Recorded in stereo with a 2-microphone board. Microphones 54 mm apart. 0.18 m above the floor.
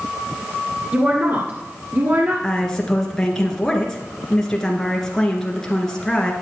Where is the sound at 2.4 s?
10° left (ahead or behind), 2.5 m.